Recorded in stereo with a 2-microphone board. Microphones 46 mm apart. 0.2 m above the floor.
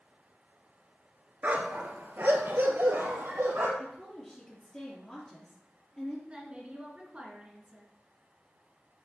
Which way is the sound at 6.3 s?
25° right (ahead or behind).